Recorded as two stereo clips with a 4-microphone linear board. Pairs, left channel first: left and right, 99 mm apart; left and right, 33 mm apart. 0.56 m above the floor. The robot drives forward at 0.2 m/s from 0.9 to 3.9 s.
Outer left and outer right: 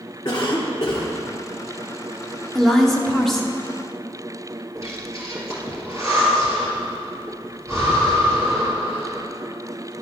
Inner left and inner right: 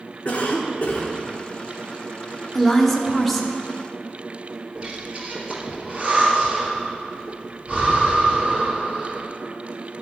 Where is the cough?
40° left (ahead or behind), 1.2 m.